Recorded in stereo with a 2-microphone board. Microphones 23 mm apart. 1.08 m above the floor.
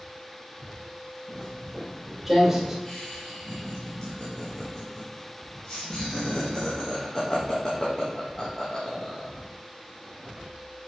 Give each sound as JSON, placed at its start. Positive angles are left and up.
{"t": 1.3, "sound": "footsteps", "side_deg": 15, "distance_m": 2.0}
{"t": 2.9, "sound": "laughter", "side_deg": 25, "distance_m": 1.3}